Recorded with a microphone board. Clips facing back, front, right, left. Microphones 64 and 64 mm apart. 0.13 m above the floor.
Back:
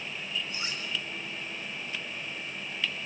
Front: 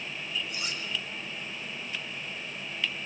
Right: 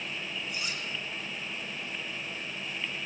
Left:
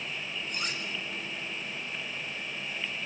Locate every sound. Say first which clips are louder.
0.5 s cutlery clinking: even, left 3 dB; 125° left, 5 m